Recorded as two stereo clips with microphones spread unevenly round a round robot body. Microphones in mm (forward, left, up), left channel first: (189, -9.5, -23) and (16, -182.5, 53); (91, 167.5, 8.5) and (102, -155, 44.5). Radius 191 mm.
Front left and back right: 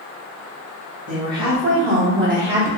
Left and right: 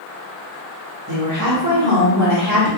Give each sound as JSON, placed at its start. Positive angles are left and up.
{"t": 1.1, "sound": "a woman speaking", "azimuth_deg": -120, "distance_m": 1.7}